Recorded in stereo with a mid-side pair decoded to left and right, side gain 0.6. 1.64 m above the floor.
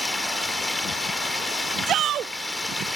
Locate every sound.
0.0 s running water: 10° left
1.9 s a shout: 55° right